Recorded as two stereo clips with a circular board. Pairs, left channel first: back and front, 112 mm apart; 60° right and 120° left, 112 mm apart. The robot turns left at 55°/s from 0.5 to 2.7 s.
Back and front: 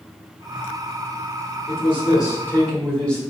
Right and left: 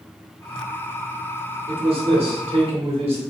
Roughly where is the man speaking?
Behind left.